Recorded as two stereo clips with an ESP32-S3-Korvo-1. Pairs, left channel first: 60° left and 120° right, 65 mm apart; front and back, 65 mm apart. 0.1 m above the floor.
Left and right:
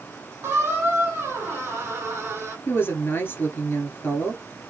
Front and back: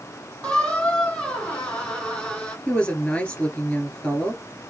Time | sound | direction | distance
0.4 | a squeak | 70° right | 1.6 m
2.7 | a woman speaking | 55° left | 1.4 m